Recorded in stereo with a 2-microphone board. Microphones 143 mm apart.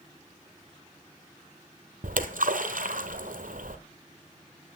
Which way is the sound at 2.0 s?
70° right (ahead or behind).